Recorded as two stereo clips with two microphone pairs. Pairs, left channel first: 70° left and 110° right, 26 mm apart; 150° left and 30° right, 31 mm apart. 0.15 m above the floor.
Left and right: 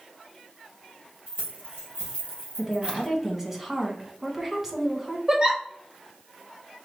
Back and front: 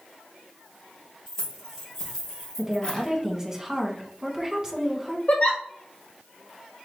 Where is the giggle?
175° right, 1.4 m.